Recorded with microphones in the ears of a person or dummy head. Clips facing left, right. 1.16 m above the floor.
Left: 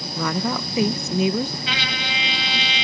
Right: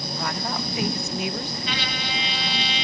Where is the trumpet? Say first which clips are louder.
Left 1 dB; 65° left (ahead or behind).